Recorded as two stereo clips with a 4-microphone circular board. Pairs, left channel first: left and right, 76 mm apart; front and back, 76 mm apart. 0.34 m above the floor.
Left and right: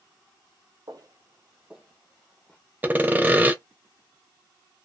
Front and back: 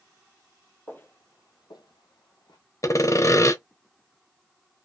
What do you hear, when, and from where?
0.9 s footsteps: 70° right, 0.7 m; by 2.6 s 20° left, 1.2 m
2.8 s sawing: 30° right, 0.5 m